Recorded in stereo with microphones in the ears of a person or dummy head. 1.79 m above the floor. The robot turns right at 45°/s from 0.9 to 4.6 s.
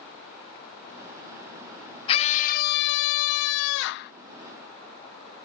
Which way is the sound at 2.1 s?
25° left.